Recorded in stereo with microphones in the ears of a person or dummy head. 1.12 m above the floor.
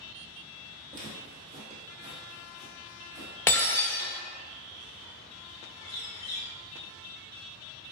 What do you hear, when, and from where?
0.9 s footsteps: 45° right (ahead or behind), 1.8 m; by 3.3 s 15° right (ahead or behind), 1.3 m
3.5 s breaking glass: 15° left (ahead or behind), 0.6 m
5.8 s a bird: 30° left (ahead or behind), 0.8 m